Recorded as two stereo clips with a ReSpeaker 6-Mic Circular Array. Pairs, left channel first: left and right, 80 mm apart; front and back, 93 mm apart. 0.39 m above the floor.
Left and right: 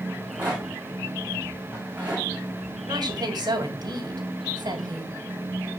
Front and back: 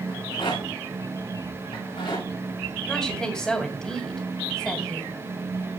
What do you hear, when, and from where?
0.1 s a rattle: 20° right, 6.5 m
2.9 s a woman speaking: 80° right, 2.5 m